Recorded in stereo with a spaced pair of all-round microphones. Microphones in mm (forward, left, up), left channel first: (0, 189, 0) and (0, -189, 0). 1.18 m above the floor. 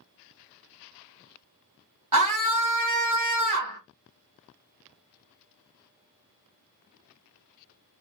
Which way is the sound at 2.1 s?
50° right (ahead or behind).